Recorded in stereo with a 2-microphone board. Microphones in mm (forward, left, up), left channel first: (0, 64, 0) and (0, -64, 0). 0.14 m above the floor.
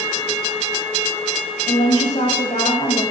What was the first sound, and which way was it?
A woman speaking, 70° left (ahead or behind).